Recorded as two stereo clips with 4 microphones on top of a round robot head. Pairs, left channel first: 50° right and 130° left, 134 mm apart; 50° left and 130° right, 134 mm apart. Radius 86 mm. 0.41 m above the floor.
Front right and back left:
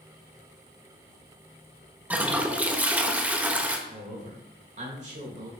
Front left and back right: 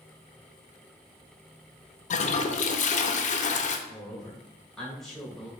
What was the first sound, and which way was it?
A toilet flushing, 55° left.